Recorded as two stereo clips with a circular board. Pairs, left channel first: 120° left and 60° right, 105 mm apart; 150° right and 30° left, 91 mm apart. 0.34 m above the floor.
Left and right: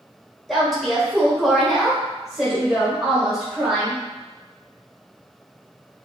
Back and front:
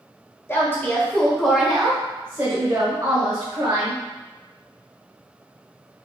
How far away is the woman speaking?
About 1.1 m.